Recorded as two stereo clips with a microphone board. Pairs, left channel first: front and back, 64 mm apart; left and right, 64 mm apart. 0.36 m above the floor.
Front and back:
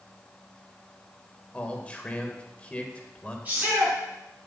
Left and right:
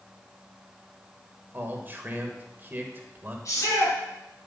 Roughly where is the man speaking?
Ahead right.